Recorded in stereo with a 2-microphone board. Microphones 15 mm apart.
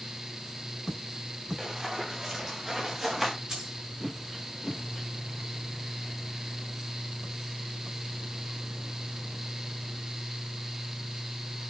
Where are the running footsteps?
30° right (ahead or behind), 6 m; by 3.3 s 15° right (ahead or behind), 6 m.